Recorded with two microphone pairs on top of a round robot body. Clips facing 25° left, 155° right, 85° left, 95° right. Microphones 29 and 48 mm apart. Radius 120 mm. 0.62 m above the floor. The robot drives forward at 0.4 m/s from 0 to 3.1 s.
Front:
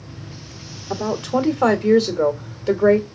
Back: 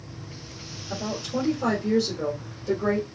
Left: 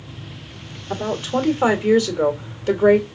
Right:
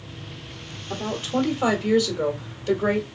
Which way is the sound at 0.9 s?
25° left.